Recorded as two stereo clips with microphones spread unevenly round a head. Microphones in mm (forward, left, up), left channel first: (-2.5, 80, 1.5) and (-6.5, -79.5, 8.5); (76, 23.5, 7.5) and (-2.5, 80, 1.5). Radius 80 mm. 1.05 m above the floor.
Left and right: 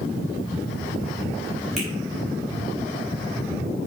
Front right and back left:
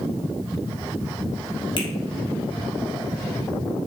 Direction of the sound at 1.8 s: Straight ahead.